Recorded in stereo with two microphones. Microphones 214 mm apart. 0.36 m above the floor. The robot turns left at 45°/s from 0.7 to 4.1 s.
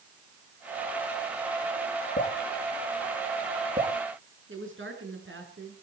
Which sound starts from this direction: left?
Dripping, at 2.2 s.